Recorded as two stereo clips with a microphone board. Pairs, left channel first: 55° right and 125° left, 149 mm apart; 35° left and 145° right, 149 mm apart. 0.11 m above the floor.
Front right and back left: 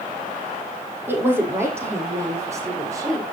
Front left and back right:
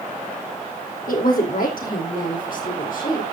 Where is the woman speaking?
50° left, 4.5 m; by 3.2 s 55° left, 7 m.